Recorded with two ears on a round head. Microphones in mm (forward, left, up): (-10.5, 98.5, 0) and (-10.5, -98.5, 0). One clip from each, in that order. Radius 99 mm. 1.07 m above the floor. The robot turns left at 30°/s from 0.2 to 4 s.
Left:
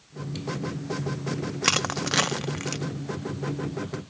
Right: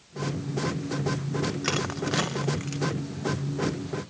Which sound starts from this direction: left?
Crushing, at 1.6 s.